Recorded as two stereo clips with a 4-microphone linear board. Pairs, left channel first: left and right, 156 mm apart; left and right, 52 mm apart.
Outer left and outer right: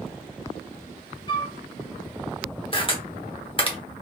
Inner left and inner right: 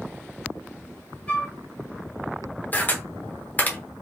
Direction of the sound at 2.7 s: 35° left (ahead or behind).